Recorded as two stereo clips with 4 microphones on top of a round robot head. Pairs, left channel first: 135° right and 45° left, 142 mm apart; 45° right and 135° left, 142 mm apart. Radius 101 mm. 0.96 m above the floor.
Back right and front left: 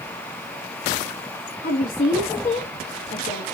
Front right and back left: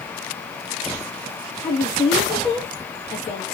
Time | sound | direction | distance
1.6 | a woman speaking | 100° right | 1.2 m